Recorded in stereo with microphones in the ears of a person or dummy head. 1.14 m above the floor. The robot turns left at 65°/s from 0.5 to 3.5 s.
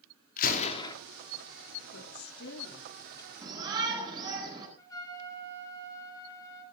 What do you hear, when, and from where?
0.4 s a gunshot: 50° left (ahead or behind), 2.5 m; by 0.9 s 25° left (ahead or behind), 2.5 m
1.9 s a woman speaking: 110° left, 3 m; by 3.3 s 15° left, 3 m
3.4 s a shout: 10° right (ahead or behind), 9.5 m; by 4.7 s 15° right (ahead or behind), 9.5 m
4.8 s a trumpet: 25° left (ahead or behind), 4 m